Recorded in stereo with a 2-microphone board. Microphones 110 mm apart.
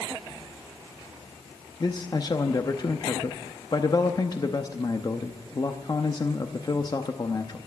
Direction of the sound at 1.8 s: 40° left (ahead or behind).